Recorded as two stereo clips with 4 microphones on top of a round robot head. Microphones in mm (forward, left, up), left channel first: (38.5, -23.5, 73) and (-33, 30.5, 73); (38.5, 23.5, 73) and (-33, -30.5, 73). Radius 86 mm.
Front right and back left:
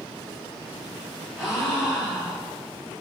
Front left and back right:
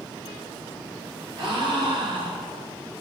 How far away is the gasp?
About 1.5 m.